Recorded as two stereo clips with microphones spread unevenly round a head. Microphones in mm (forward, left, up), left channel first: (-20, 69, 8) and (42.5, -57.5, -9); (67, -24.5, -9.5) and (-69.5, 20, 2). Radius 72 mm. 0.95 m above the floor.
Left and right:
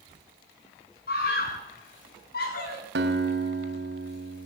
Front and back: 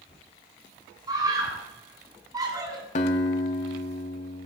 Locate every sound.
1.1 s a scream: 95° left, 10 m
3.0 s a guitar: 60° right, 3.5 m